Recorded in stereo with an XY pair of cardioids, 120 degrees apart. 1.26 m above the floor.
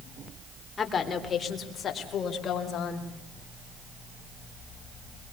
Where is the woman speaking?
30° left, 3.5 m; by 3.1 s 50° left, 5.5 m.